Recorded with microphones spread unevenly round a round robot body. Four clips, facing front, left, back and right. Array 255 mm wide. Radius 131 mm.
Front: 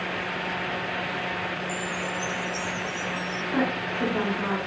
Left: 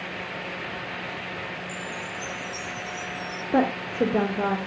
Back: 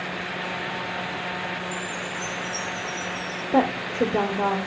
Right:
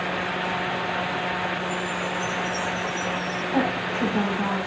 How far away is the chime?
About 6 m.